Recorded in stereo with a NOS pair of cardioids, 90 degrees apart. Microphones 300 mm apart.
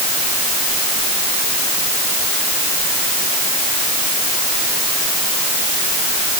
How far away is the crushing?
I don't hear crushing.